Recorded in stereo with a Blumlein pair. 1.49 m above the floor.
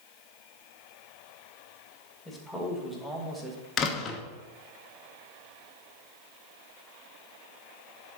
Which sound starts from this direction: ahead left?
A door slam, at 3.8 s.